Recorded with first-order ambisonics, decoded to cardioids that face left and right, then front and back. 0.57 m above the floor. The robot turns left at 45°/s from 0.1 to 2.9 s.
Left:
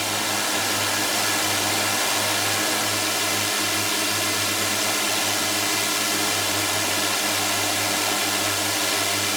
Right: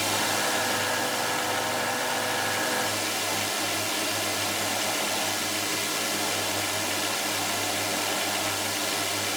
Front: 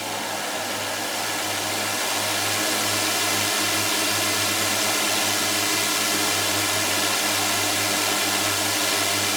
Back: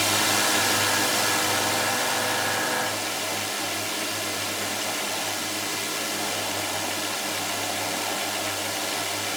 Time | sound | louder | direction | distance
0.0 | a drone | left 2 dB, back 5 dB | 165° left | ?